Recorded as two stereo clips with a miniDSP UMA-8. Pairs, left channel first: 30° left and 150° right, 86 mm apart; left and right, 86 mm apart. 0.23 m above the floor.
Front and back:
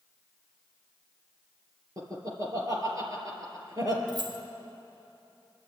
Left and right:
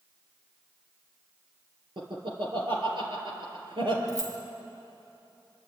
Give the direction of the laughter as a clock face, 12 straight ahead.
3 o'clock.